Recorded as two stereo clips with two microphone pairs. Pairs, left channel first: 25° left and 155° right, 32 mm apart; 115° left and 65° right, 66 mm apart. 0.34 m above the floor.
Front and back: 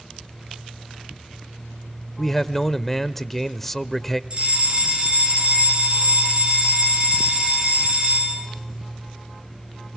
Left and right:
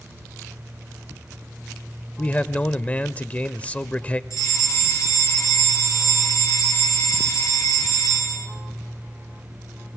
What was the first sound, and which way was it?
A man speaking, 95° left.